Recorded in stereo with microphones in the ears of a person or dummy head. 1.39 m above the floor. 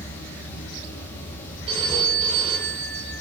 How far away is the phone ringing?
About 3.5 m.